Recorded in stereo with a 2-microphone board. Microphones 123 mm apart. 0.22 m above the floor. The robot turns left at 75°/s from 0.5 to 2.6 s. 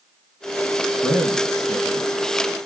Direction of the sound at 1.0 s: 5° left (ahead or behind).